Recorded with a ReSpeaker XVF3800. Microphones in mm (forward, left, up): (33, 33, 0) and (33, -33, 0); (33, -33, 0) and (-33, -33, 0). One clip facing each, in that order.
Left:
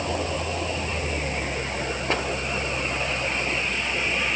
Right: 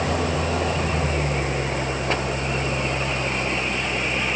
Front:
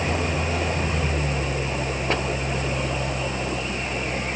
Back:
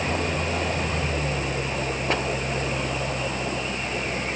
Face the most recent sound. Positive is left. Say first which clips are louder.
# right 4 dB, front 1 dB
turn(degrees=-85)